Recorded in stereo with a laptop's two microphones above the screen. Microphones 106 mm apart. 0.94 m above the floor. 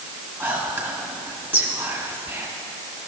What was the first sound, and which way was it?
Whispering, 20° right (ahead or behind).